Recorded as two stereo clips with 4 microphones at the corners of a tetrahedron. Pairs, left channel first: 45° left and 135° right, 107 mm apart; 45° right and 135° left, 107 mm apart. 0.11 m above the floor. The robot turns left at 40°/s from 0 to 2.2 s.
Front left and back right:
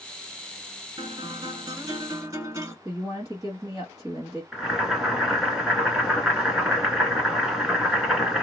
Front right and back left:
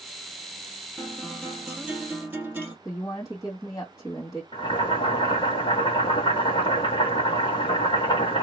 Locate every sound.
1.0 s a guitar: 120° right, 2.0 m; by 2.8 s 170° right, 2.0 m
2.9 s a woman speaking: 85° right, 2.0 m
4.5 s boiling: 50° right, 2 m